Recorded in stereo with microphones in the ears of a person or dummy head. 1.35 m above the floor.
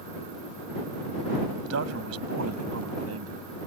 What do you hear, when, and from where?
1.6 s a man speaking: 85° right